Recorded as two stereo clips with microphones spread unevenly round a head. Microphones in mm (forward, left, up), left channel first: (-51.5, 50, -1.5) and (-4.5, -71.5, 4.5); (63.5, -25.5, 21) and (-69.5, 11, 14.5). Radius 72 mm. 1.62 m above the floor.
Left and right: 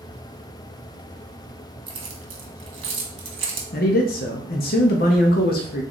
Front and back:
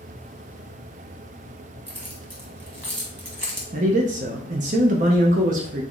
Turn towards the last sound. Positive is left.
turn(degrees=125)